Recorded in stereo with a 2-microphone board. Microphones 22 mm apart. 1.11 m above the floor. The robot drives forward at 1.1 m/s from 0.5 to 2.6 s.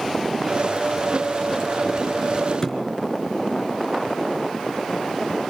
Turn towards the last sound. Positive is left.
turn(degrees=20)  # may be behind; listen again after turning